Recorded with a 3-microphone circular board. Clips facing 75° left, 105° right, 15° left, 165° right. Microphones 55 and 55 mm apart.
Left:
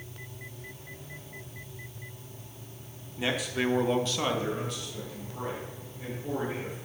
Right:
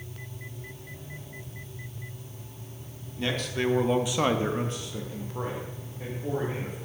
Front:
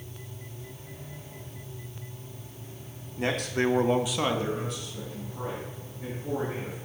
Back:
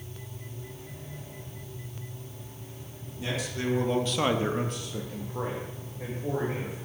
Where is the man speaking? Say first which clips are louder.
Even, front 6 dB; straight ahead, 1.3 m; by 6.8 s 165° right, 3 m.